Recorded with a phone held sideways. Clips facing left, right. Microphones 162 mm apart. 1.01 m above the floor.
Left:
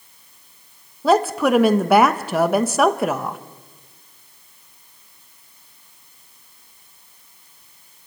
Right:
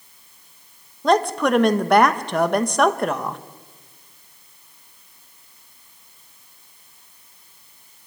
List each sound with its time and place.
1.0 s a woman speaking: 5° left (ahead or behind), 1.0 m